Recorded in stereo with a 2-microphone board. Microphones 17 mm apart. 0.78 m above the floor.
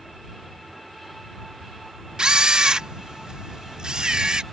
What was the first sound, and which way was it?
A camera shutter, 60° right (ahead or behind).